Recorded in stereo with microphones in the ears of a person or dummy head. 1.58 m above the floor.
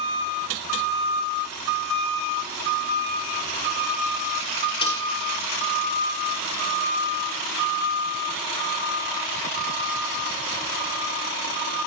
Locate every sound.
4.8 s a snare drum: 25° left (ahead or behind), 5.5 m